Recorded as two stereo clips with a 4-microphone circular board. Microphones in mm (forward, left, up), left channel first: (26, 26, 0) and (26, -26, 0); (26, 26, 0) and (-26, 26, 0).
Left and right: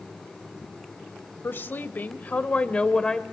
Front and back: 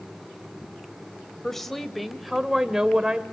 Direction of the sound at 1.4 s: 80° left.